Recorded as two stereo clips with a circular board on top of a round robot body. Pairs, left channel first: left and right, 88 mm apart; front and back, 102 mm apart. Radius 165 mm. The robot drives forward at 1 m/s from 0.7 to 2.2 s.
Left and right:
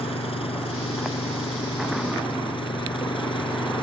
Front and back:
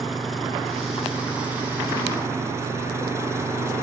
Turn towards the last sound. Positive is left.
turn(degrees=115)